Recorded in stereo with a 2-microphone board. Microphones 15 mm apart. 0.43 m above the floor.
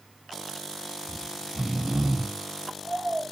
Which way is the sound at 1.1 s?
45° right (ahead or behind).